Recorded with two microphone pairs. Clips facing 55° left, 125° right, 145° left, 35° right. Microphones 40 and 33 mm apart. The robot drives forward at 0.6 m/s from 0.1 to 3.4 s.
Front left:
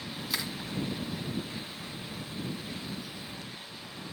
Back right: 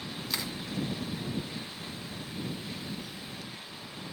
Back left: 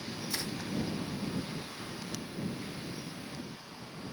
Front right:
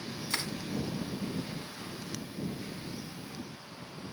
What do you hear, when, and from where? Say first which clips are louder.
0.3 s crushing: front left 1 dB, front right 3 dB; 30° right, 2.5 m; by 0.5 s 35° right, 2 m